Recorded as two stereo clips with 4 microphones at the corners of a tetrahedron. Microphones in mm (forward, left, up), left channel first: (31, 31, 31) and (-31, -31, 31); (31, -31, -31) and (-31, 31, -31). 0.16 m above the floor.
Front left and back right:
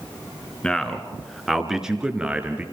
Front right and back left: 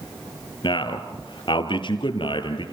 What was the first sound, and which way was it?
A man speaking, 35° right.